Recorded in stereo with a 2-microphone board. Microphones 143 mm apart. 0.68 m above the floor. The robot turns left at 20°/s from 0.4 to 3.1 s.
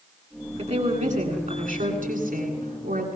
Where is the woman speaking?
45° right, 9 m; by 3.2 s 95° right, 9 m.